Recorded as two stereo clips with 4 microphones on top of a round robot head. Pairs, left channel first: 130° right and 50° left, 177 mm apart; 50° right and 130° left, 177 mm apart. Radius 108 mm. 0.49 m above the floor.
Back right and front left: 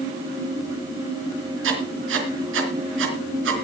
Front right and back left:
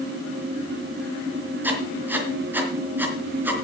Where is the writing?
50° left, 3.5 m.